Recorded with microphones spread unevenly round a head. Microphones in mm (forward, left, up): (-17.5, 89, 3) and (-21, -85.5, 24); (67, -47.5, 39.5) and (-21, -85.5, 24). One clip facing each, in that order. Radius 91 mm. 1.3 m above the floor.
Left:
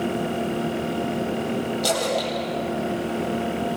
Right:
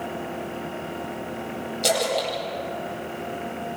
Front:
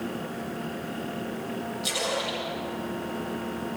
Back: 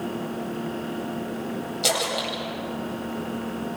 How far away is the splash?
About 8 m.